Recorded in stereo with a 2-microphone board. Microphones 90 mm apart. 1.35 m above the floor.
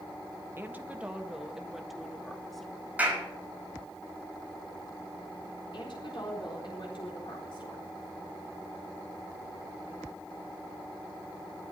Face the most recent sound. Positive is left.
turn(degrees=70)  # may be behind; listen again after turning